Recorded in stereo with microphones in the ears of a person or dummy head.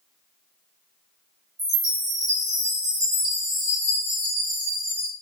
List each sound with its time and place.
1.6 s a chime: 25° right (ahead or behind), 1.1 m